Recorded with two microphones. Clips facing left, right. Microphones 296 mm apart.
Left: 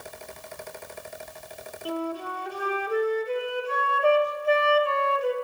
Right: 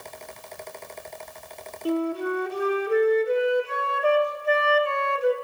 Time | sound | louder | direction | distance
1.9 | a flute | right 7 dB | 25° right (ahead or behind) | 1.8 m